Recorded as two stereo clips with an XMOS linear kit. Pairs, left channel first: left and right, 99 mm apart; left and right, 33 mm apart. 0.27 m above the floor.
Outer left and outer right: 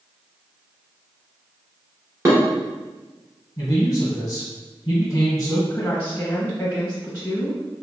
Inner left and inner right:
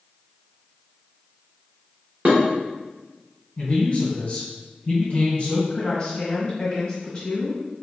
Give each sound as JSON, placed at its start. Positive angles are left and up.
{"t": 2.2, "sound": "dishes clattering", "side_deg": -35, "distance_m": 1.6}
{"t": 3.6, "sound": "a man speaking", "side_deg": 30, "distance_m": 1.7}
{"t": 5.7, "sound": "a woman speaking", "side_deg": 10, "distance_m": 1.1}